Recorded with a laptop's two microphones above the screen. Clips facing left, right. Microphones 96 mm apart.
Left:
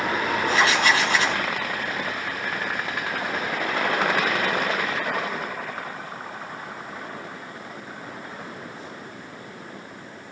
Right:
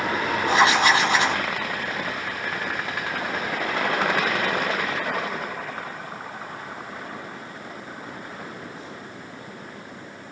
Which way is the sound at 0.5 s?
20° right (ahead or behind).